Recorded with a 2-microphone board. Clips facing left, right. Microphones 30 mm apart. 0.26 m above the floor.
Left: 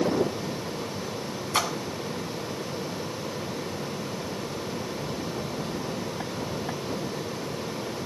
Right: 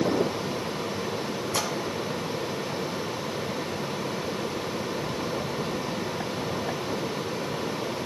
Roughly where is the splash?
Left.